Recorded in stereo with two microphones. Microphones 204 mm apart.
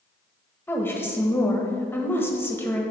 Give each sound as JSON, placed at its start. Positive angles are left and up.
{"t": 0.7, "sound": "a woman speaking", "side_deg": 10, "distance_m": 1.2}